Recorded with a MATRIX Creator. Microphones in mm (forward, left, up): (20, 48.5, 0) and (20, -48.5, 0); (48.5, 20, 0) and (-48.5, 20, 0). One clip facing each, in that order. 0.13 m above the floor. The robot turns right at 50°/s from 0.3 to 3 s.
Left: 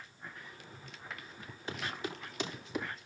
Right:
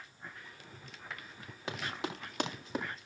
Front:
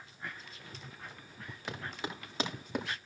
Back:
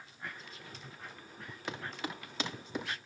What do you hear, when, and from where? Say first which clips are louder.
1.7 s running footsteps: right 1 dB, even; 90° right, 9.5 m; by 2.9 s 35° right, 9 m